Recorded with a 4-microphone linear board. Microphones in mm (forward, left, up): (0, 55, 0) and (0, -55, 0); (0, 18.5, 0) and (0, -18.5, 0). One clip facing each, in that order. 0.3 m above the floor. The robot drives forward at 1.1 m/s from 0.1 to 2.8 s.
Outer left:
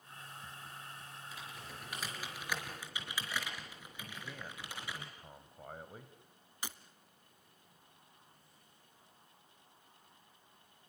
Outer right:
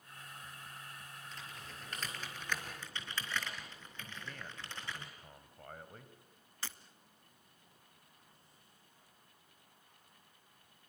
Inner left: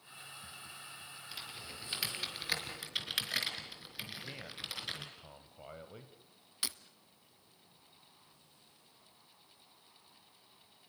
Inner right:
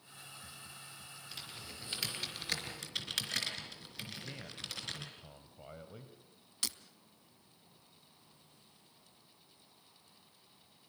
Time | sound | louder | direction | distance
1.3 | typing on a keyboard | outer left 2 dB, inner left 1 dB | 10° left (ahead or behind) | 5.5 m
4.1 | a man speaking | outer left 1 dB, inner left 1 dB | 10° left (ahead or behind) | 1.3 m
6.6 | breaking glass | outer left 2 dB, inner left 1 dB | 15° left (ahead or behind) | 0.9 m